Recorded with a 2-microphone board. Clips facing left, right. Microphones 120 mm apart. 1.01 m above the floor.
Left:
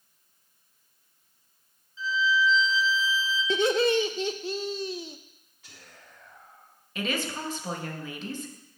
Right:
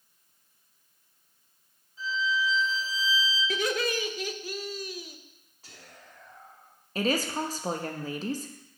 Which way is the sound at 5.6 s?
40° right (ahead or behind).